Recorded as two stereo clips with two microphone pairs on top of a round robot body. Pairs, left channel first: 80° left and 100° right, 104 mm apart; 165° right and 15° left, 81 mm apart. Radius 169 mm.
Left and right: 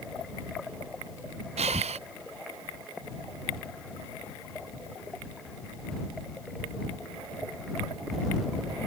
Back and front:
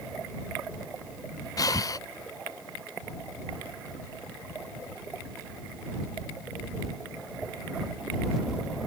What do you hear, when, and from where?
1.6 s breathing: 120° right